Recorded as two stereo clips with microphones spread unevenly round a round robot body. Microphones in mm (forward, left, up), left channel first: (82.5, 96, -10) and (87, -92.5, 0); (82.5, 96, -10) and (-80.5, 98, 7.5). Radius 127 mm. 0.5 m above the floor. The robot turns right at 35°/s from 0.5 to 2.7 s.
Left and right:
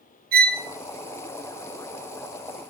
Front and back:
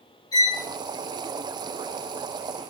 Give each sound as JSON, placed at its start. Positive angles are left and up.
{"t": 0.3, "sound": "a violin", "azimuth_deg": -65, "distance_m": 0.8}